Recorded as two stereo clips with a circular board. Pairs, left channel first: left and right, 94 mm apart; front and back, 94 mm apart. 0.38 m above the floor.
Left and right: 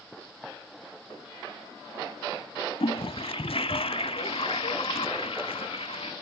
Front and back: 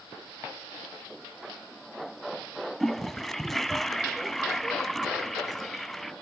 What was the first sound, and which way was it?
A toilet flushing, 85° left.